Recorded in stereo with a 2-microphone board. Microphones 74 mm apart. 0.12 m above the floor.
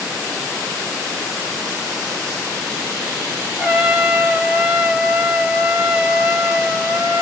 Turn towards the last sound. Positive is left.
turn(degrees=-10)  # may be behind; listen again after turning